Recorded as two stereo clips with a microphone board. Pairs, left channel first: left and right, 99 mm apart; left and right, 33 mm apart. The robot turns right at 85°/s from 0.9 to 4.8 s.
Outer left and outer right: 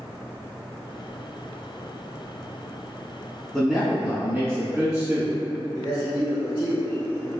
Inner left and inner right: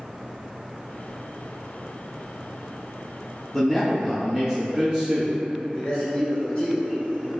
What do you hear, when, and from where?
3.5 s a man speaking: 5° left (ahead or behind), 1.6 m; by 5.3 s 30° right (ahead or behind), 1.6 m
5.8 s a man speaking: 25° left (ahead or behind), 1.1 m